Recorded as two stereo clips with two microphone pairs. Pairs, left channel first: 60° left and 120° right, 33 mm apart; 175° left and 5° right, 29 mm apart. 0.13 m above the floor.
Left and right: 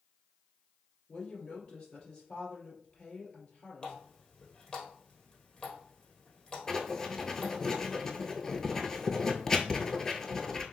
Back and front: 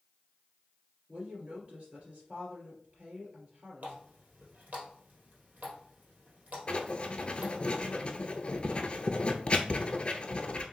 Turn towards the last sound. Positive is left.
turn(degrees=130)